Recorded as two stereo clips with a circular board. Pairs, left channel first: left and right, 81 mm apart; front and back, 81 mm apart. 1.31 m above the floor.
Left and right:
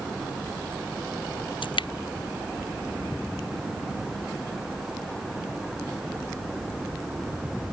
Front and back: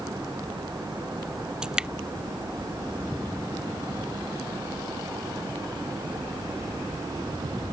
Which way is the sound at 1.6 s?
100° left.